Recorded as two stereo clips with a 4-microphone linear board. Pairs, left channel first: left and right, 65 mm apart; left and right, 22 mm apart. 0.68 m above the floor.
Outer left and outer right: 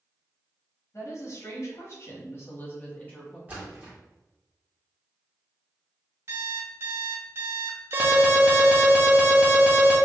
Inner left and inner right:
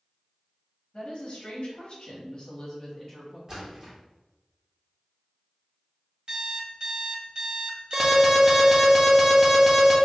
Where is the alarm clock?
45° right (ahead or behind), 1.6 m.